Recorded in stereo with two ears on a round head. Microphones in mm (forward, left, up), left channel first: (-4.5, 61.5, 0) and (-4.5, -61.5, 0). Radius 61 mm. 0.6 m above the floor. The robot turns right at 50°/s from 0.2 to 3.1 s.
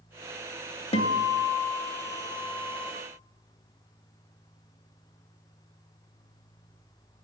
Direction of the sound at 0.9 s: 60° left.